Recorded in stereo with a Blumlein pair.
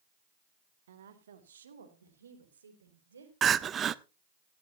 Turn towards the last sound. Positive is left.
turn(degrees=-25)